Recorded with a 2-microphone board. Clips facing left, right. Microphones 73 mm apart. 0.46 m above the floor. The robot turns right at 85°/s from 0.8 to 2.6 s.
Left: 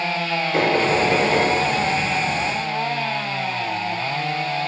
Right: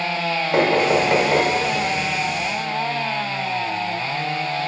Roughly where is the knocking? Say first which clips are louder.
Right 2 dB; right.